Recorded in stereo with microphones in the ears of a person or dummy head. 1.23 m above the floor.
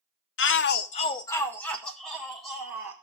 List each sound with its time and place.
0.4 s a shout: 60° left (ahead or behind), 0.8 m; by 2.9 s 5° right (ahead or behind), 3 m